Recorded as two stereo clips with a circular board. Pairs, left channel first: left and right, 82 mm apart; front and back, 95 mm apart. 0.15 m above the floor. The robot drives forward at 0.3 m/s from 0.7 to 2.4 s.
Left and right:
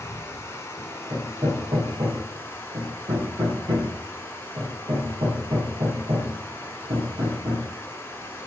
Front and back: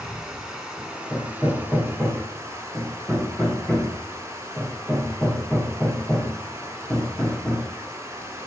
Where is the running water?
105° left, 1.3 m; by 8.5 s 135° left, 1.4 m.